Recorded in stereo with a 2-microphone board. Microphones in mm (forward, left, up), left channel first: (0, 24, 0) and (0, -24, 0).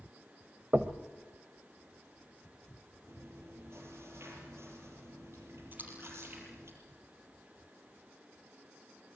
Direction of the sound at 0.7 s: 40° right (ahead or behind).